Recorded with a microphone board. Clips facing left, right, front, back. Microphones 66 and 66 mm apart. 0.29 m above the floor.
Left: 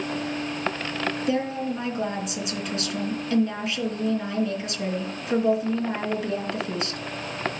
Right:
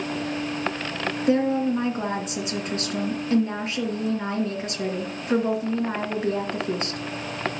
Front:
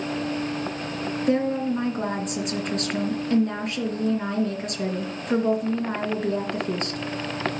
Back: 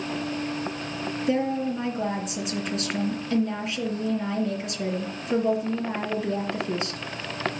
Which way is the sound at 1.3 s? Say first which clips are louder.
Right 8 dB, front 2 dB; 35° right.